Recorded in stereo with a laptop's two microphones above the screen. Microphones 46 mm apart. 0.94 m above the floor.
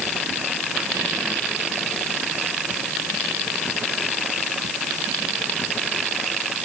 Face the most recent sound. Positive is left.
No sound to turn to.